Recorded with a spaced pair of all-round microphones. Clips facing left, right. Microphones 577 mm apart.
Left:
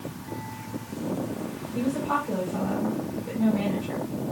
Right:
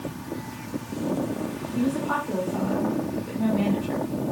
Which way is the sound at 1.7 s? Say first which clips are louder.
Right 2 dB; 55° left (ahead or behind).